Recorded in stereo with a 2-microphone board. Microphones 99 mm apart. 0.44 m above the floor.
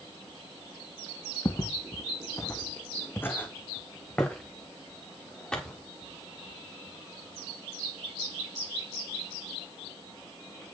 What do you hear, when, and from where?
1.4 s footsteps: 40° left (ahead or behind), 0.5 m; by 5.8 s 10° left (ahead or behind), 2.5 m